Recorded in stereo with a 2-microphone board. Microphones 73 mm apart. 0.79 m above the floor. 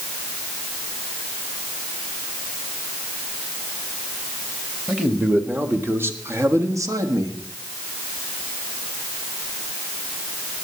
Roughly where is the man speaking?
Centre.